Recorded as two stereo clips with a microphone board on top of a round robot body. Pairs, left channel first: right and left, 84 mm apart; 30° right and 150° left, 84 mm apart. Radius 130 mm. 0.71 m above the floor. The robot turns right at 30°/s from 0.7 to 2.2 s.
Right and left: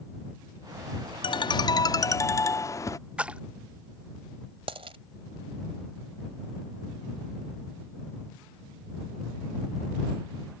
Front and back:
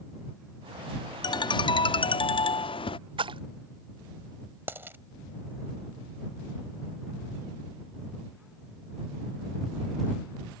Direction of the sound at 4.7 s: 85° left.